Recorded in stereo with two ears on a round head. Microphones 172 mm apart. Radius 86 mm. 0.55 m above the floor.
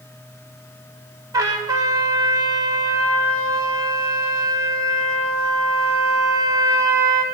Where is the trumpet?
20° right (ahead or behind), 0.5 m.